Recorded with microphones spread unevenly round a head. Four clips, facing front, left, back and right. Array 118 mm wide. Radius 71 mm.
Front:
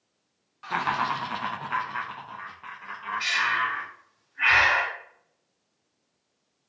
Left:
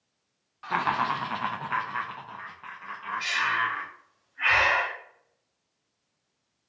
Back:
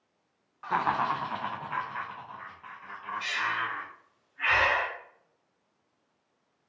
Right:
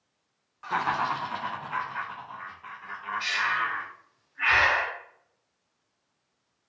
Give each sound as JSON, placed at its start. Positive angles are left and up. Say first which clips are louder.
{"t": 0.6, "sound": "laughter", "louder": "left 1 dB, even", "azimuth_deg": -175, "distance_m": 0.6}
{"t": 3.2, "sound": "breathing", "louder": "left 1 dB, front 5 dB", "azimuth_deg": 5, "distance_m": 2.0}